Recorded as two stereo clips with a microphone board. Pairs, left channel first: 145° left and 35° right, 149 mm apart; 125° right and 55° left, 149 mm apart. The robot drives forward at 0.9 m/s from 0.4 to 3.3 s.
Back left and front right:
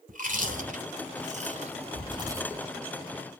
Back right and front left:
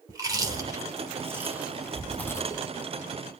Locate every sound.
0.1 s chewing: 10° right, 2.0 m; by 2.6 s 115° right, 0.7 m